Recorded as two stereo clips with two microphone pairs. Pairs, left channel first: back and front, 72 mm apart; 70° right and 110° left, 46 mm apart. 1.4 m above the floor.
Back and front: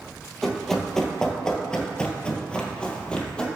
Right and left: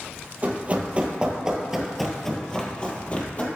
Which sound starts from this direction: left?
Running footsteps, at 0.4 s.